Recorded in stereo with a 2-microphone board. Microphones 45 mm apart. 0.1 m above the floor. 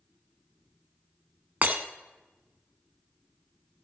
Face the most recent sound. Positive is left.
turn(degrees=-35)  # may be behind; listen again after turning